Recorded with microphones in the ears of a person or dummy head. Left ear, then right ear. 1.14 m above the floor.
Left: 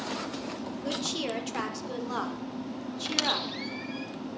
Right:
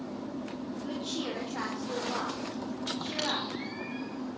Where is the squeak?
70° left (ahead or behind), 4 m.